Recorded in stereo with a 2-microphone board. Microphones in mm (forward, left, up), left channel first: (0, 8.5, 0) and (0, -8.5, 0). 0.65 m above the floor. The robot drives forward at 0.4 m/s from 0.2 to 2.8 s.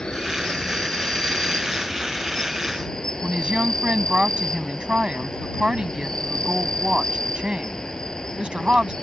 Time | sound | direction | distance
0.0 | an insect | 70° left (ahead or behind) | ?
3.2 | a woman speaking | 80° right | ?